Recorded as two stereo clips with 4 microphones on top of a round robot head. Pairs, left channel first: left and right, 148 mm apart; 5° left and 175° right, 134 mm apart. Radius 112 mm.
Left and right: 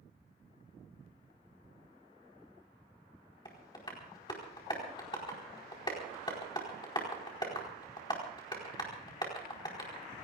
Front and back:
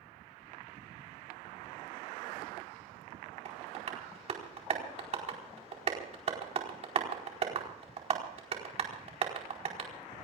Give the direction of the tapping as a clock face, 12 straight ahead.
7 o'clock.